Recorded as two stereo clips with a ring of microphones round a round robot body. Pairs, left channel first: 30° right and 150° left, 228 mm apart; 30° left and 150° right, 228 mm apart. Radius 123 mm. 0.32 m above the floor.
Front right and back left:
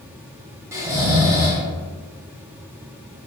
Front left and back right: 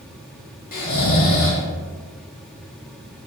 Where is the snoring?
75° left, 1.2 m.